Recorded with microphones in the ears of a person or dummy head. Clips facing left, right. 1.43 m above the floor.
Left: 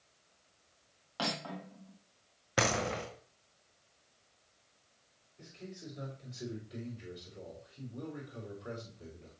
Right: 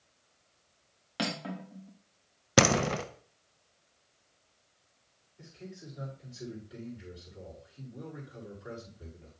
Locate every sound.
1.2 s cutlery clinking: 25° right (ahead or behind), 1.3 m
2.6 s a door slam: 50° right (ahead or behind), 0.6 m
5.4 s a man speaking: 10° right (ahead or behind), 5 m